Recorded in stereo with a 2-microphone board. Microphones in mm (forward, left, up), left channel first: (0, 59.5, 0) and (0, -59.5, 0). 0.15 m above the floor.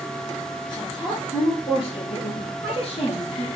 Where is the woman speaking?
40° left (ahead or behind), 4.5 m; by 3.5 s 55° left (ahead or behind), 5.5 m.